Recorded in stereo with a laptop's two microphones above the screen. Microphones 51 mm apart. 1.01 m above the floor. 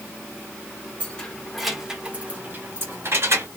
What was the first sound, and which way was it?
Keys jangling, 25° left (ahead or behind).